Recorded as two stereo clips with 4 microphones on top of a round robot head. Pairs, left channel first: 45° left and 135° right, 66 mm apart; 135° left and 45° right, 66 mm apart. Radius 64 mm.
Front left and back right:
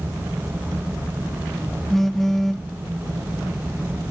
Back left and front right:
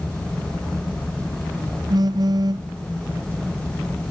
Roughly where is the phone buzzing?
Ahead right.